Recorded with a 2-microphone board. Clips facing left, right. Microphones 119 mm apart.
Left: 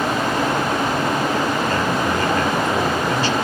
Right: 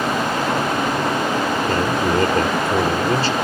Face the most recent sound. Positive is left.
turn(degrees=-35)  # may be behind; listen again after turning